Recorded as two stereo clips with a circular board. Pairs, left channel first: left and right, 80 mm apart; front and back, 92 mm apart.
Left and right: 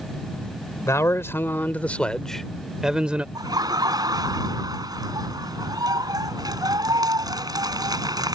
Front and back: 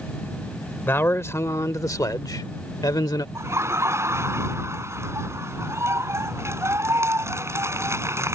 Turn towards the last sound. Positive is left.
turn(degrees=-120)